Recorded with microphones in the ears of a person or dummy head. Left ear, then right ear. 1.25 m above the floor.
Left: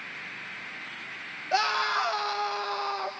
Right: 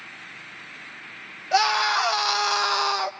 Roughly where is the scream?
Centre.